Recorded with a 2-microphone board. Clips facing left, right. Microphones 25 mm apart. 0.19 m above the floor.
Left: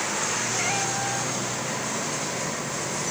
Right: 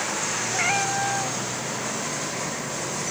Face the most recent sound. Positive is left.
turn(degrees=-30)  # may be behind; listen again after turning